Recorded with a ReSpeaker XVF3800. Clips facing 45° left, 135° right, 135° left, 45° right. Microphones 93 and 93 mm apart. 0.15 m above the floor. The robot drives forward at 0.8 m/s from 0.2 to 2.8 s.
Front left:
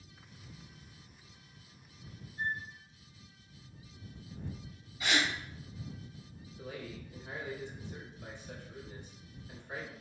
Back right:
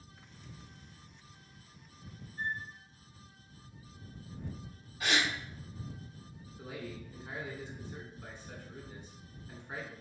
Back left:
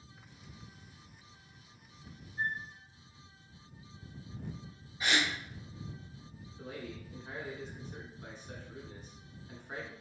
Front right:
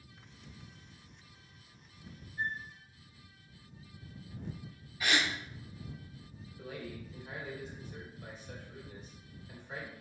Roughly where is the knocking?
No knocking in this recording.